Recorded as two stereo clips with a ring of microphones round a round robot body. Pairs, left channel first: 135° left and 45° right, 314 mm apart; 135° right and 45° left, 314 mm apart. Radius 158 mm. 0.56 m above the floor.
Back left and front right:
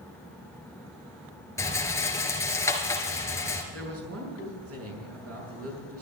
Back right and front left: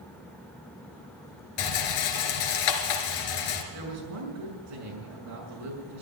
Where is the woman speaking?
5° left, 6.5 m.